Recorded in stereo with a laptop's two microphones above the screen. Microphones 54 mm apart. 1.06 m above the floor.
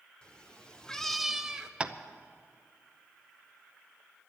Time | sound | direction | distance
0.2 | a cat meowing | 20° left (ahead or behind) | 1.3 m
1.8 | tapping | 20° right (ahead or behind) | 0.7 m